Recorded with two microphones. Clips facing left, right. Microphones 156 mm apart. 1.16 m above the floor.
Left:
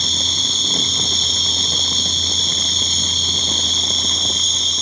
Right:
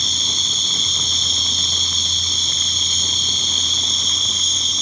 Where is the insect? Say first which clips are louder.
Left 4 dB; 20° right (ahead or behind), 3 m.